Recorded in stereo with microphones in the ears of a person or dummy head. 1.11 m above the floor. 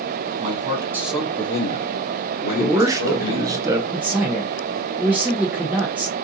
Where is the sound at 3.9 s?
5° right (ahead or behind), 0.7 m.